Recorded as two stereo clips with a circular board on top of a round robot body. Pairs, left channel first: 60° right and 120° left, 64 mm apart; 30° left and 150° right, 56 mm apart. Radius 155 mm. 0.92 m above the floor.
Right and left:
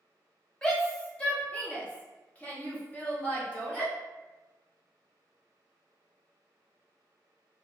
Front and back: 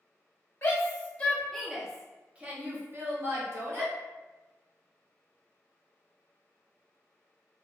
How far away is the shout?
About 1.1 m.